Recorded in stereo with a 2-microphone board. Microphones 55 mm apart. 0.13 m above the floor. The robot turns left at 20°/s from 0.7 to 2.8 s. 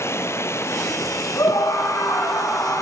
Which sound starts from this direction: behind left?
Running water, at 0.0 s.